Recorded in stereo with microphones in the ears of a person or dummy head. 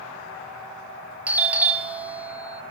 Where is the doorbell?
10° right (ahead or behind), 0.9 m.